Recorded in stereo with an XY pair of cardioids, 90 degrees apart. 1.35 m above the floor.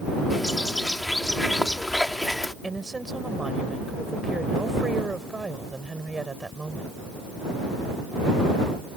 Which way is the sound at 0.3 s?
10° left.